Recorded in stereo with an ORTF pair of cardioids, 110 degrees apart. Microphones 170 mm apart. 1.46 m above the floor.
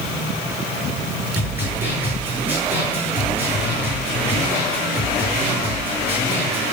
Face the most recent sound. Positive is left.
turn(degrees=-10)